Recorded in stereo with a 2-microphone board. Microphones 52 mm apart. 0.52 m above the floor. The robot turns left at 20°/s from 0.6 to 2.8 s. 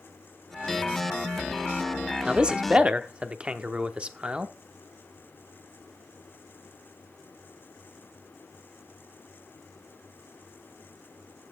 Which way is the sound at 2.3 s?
15° right (ahead or behind).